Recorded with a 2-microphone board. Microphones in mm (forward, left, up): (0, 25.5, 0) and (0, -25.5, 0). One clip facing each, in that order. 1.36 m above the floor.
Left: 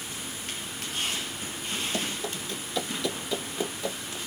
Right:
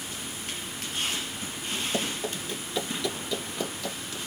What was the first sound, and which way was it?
Running footsteps, 25° right (ahead or behind).